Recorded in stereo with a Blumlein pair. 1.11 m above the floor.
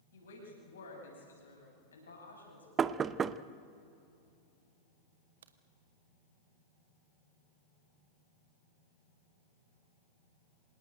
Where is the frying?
No frying in this recording.